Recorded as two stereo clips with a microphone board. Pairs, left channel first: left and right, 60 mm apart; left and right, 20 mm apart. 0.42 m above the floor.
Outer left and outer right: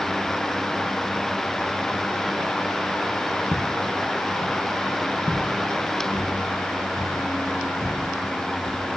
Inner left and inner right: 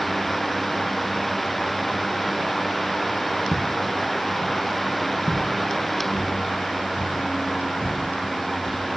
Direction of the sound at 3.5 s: 5° right (ahead or behind).